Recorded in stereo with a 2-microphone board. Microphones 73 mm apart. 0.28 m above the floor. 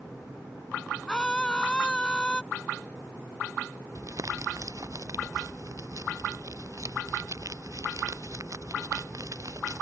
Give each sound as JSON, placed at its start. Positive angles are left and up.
{"t": 1.1, "sound": "a scream", "side_deg": 10}
{"t": 4.0, "sound": "crumpling", "side_deg": -50}